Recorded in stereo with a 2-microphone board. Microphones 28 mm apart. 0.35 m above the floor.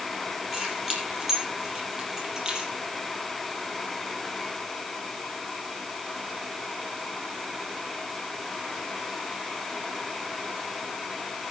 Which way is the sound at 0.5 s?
5° right (ahead or behind).